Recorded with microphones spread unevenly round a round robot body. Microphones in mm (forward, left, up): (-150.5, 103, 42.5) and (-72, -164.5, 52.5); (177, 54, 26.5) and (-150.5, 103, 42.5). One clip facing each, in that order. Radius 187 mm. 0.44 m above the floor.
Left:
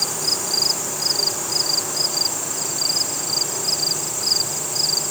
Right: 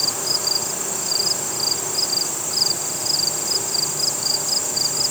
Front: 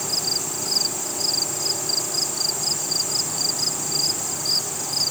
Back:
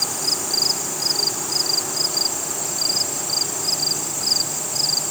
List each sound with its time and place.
Only background noise.